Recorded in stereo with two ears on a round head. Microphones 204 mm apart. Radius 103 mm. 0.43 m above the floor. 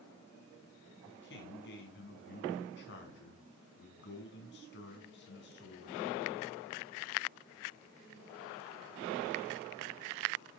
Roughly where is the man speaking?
Left.